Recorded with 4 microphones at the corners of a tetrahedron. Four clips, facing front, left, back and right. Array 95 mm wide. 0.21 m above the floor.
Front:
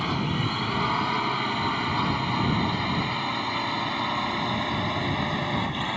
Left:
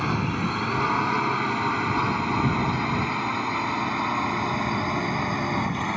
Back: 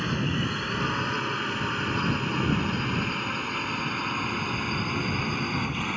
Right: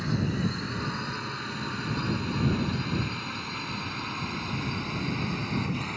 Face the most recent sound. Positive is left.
turn(degrees=70)